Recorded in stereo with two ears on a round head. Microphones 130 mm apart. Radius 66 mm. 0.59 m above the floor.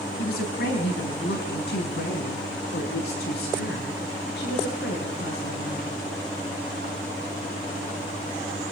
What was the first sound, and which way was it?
A woman speaking, 75° left (ahead or behind).